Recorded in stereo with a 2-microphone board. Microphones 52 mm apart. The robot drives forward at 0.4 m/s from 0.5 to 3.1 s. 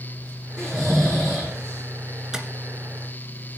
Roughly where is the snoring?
Centre.